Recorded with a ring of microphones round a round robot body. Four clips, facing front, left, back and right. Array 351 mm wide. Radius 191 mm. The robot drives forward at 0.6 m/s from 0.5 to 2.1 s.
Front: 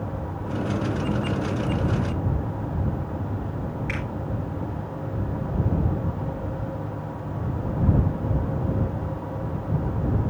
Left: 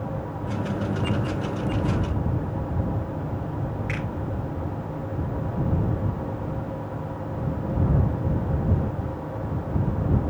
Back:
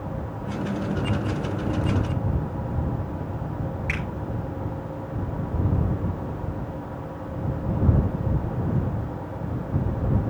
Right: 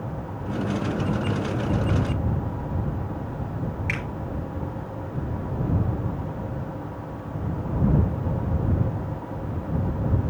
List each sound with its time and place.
3.9 s a finger snap: 120° right, 8.5 m